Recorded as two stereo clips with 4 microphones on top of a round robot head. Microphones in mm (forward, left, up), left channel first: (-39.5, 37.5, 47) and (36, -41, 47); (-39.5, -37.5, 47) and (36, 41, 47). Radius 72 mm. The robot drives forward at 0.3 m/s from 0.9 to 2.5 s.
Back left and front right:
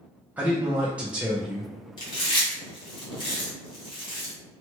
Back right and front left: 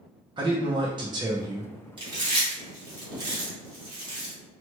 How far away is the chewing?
About 1.4 m.